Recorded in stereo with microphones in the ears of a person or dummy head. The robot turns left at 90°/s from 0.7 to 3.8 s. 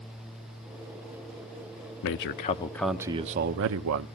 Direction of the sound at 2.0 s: 75° left.